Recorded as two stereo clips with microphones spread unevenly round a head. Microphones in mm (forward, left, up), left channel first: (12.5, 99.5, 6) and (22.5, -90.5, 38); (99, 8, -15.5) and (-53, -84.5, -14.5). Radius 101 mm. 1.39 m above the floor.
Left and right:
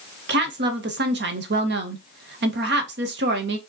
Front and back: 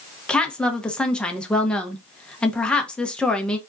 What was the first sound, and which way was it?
A woman speaking, 55° right.